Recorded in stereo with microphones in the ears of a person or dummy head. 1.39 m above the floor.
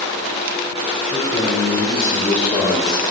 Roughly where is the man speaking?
Centre.